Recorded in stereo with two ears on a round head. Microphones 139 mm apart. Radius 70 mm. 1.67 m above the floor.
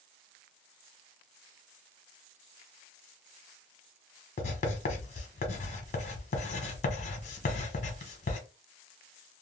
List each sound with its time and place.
4.4 s writing: 45° left (ahead or behind), 0.9 m